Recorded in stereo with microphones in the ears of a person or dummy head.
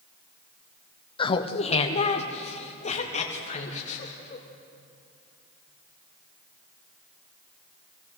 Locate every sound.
1.2 s laughter: 25° left (ahead or behind), 0.9 m; by 4.5 s 35° left (ahead or behind), 3.5 m